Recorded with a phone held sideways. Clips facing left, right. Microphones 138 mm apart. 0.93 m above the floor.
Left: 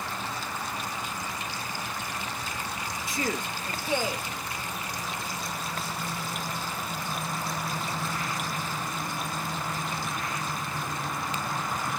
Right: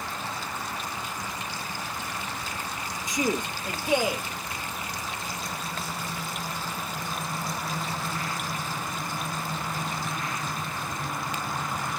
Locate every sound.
3.1 s a man speaking: 15° right (ahead or behind)